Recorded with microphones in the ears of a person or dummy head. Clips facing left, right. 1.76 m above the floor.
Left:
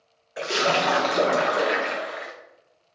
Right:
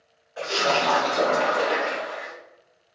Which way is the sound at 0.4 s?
30° left (ahead or behind).